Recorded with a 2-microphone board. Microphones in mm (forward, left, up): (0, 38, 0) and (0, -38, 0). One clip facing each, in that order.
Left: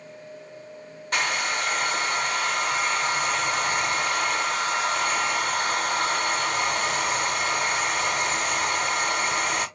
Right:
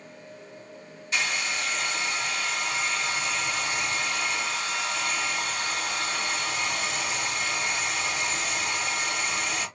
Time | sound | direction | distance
1.1 | a hair dryer | 55° left (ahead or behind) | 1.5 m